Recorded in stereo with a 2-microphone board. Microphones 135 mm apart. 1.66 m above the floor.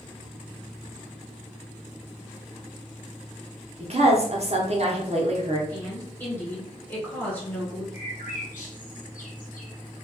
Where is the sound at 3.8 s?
50° right (ahead or behind), 0.7 m.